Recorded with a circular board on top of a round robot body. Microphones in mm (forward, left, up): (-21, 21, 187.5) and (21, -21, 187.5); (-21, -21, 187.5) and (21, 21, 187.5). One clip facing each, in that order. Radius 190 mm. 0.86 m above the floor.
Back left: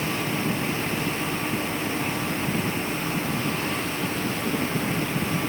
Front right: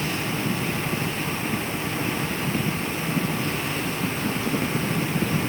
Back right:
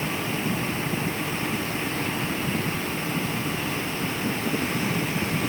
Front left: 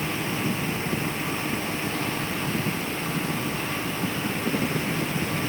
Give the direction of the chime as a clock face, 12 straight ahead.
I don't hear a chime.